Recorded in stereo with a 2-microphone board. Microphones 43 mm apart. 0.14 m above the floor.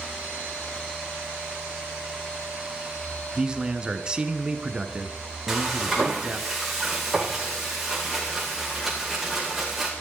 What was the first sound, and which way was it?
A man speaking, 20° right (ahead or behind).